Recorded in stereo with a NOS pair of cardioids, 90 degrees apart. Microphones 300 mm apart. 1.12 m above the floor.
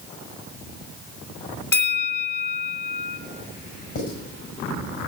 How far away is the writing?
About 5 m.